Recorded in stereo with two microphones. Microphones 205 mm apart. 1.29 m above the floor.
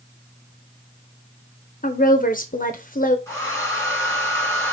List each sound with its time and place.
1.8 s a woman speaking: 45° left (ahead or behind), 0.8 m
3.3 s a hair dryer: 15° left (ahead or behind), 2.5 m